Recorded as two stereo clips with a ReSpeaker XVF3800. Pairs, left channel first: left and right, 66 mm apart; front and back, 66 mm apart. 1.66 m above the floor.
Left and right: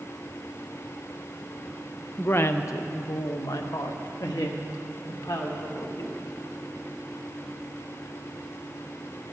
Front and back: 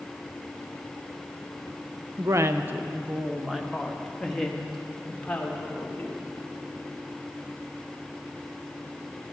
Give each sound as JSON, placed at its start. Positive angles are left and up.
{"t": 2.2, "sound": "a woman speaking", "azimuth_deg": 150, "distance_m": 0.6}